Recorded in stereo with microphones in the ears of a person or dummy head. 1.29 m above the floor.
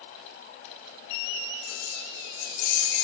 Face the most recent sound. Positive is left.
turn(degrees=85)